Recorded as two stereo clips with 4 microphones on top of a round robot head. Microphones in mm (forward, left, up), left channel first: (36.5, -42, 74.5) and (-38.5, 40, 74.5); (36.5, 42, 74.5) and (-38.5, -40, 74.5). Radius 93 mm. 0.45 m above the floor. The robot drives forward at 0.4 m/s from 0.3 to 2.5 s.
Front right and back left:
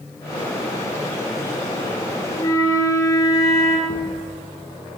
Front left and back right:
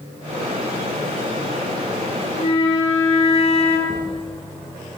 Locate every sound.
2.4 s a flute: 10° left, 8.5 m
3.9 s a thud: 85° right, 7.5 m